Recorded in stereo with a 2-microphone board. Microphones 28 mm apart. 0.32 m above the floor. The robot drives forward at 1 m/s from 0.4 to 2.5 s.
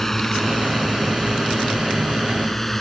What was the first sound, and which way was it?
A drone, 15° left (ahead or behind).